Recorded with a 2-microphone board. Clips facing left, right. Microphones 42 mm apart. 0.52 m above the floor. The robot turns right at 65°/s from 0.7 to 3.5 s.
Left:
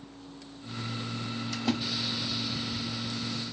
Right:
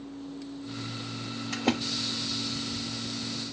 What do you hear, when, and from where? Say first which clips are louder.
1.5 s a splash: right 3 dB; 55° right (ahead or behind), 1.5 m